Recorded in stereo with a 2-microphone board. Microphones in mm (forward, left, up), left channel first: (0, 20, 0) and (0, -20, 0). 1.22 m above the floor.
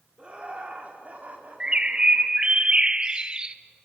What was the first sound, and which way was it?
Laughter, 25° right (ahead or behind).